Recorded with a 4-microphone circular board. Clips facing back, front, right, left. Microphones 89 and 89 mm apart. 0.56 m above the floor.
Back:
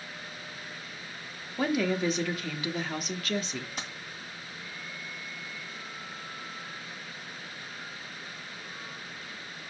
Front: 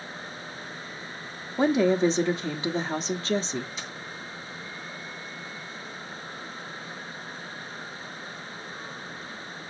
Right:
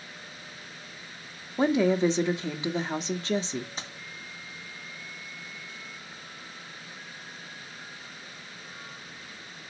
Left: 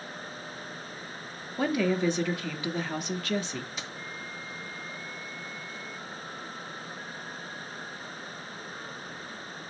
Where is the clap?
I don't hear a clap.